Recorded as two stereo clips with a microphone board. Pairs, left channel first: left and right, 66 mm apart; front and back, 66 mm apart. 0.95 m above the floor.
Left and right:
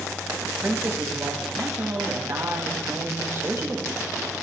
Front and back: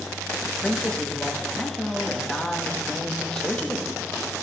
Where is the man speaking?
75° right, 1.0 m.